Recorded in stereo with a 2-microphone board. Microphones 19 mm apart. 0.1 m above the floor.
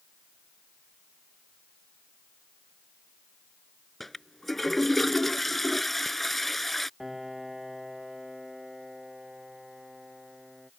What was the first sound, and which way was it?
A toilet flushing, 10° left (ahead or behind).